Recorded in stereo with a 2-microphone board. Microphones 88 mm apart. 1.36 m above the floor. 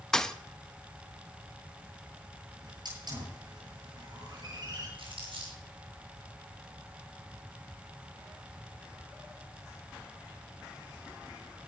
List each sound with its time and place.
0.1 s a thud: 10° left (ahead or behind), 0.7 m
2.6 s a hiss: 55° right (ahead or behind), 9 m
5.0 s crumpling: 85° right, 6.5 m